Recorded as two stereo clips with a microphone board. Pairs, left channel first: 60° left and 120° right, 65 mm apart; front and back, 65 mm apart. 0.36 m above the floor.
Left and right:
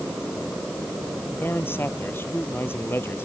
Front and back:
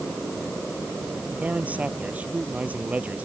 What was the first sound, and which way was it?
A man speaking, 115° left.